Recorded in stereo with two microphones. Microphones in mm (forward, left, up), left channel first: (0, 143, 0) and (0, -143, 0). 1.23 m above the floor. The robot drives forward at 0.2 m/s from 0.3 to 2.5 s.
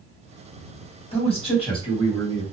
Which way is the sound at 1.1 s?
20° left (ahead or behind).